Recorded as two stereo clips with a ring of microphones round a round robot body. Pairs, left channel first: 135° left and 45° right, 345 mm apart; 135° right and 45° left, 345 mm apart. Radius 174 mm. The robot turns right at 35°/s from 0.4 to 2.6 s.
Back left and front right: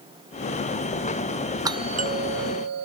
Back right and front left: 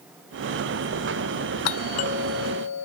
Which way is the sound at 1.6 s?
125° right.